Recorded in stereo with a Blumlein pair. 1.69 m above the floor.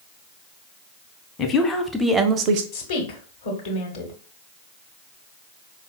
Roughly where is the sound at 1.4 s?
Ahead left.